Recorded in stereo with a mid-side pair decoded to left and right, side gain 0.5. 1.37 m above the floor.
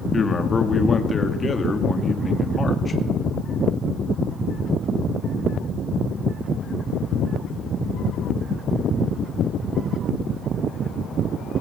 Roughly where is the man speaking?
Ahead left.